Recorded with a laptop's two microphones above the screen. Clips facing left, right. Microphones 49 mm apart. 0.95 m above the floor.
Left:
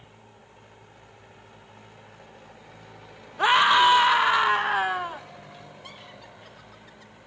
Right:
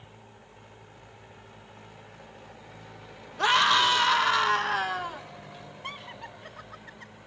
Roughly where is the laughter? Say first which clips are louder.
Right 5 dB; right.